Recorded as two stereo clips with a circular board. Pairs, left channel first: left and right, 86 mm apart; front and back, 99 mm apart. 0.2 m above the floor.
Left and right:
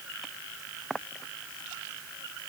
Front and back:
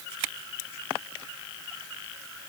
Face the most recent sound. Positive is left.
No sound to turn to.